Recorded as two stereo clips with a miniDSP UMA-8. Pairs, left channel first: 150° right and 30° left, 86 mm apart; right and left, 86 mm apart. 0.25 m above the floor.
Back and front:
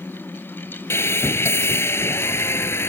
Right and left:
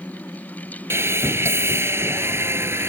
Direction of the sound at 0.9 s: 150° left.